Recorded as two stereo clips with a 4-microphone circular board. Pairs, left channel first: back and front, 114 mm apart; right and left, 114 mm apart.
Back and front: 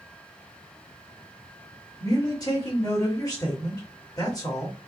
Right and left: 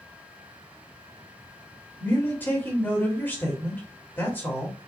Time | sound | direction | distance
2.0 | a man speaking | 150° right | 1.7 m